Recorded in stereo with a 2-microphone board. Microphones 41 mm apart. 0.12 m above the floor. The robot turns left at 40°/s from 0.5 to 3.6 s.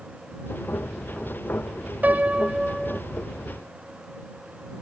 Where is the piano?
135° right; by 3.0 s 175° right.